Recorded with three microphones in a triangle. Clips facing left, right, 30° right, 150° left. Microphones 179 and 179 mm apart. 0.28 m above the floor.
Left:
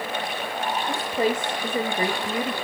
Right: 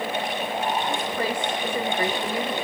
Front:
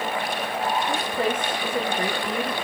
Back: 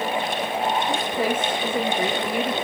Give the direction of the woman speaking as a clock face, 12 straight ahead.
9 o'clock.